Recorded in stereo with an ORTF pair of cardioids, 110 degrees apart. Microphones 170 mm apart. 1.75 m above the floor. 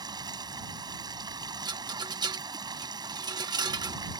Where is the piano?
I don't hear a piano.